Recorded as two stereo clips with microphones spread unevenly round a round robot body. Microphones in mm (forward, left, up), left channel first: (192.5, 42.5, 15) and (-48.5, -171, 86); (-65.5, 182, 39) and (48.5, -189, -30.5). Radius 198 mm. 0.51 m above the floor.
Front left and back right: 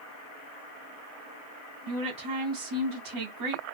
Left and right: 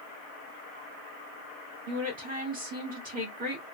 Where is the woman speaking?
130° right, 1.4 m.